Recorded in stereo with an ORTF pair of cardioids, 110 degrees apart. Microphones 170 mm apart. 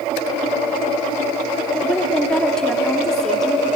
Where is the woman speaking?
5° left, 2 m.